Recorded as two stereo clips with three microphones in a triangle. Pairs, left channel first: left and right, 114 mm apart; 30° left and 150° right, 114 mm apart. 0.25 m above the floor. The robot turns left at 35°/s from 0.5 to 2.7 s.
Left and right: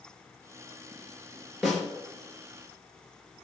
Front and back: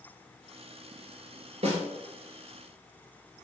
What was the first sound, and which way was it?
A snare drum, straight behind.